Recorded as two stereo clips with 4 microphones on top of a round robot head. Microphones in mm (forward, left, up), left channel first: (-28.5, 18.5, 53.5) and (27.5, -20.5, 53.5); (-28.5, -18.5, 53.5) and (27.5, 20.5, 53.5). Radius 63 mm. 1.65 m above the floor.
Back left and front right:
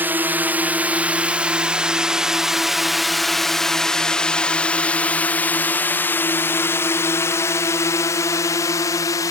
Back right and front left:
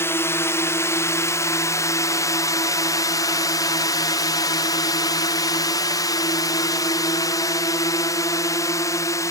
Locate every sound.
0.0 s a drone: 95° right; by 9.3 s 175° left